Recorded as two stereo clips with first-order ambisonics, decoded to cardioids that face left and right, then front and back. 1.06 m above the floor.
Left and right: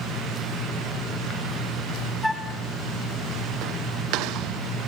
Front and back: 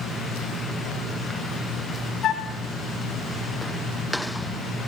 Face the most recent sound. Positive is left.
turn(degrees=5)